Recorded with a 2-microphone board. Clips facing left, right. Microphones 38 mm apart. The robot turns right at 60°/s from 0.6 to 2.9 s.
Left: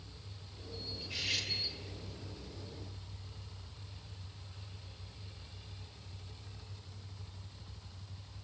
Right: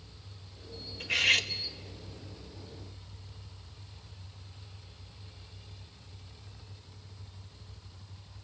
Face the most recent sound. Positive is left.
turn(degrees=25)